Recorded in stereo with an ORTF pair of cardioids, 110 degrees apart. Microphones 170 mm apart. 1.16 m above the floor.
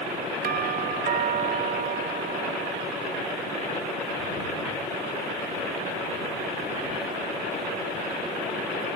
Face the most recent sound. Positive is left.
turn(degrees=-60)